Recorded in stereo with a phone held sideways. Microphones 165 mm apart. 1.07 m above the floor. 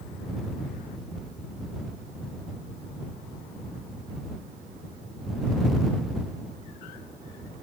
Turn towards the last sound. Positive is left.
No sound to turn to.